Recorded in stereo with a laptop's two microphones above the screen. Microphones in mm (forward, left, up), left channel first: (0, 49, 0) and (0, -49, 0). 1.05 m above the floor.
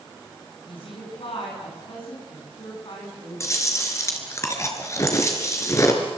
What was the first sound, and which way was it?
A woman speaking, 65° left (ahead or behind).